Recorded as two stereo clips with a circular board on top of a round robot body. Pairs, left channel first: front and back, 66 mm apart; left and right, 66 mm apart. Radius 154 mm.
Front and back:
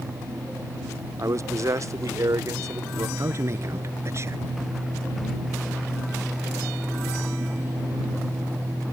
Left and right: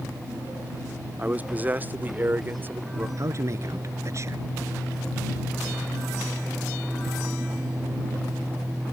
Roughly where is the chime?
No chime in this recording.